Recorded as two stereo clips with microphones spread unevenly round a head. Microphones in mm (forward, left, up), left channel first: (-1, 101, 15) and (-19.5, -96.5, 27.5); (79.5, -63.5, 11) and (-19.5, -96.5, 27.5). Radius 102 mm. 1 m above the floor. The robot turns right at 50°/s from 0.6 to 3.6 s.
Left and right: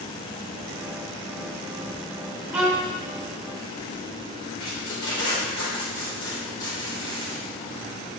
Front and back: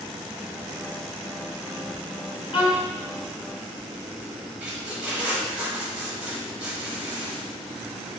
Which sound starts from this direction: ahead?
A violin, at 2.5 s.